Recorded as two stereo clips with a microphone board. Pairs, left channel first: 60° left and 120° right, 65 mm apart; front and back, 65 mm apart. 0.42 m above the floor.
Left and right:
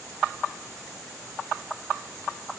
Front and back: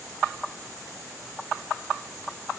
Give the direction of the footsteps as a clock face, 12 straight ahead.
No footsteps in this recording.